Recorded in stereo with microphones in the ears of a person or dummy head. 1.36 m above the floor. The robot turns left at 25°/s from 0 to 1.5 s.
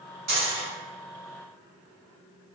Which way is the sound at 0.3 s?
40° right (ahead or behind).